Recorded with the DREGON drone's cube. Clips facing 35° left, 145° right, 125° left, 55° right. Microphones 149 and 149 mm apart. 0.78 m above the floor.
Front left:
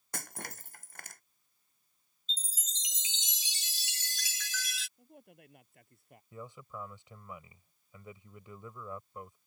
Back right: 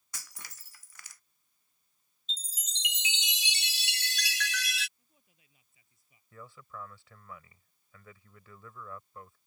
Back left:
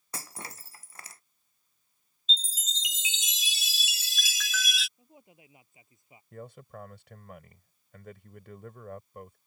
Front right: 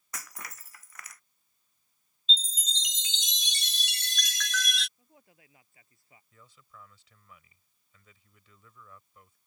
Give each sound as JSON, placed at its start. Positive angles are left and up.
{"t": 0.1, "sound": "breaking glass", "azimuth_deg": 65}
{"t": 2.3, "sound": "a chime", "azimuth_deg": -150}
{"t": 5.0, "sound": "a man speaking", "azimuth_deg": 55}
{"t": 6.3, "sound": "a man speaking", "azimuth_deg": 105}